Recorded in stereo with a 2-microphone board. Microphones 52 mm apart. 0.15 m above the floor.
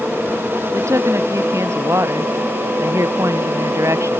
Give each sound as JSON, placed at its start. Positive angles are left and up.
{"t": 0.7, "sound": "a woman speaking", "side_deg": -70}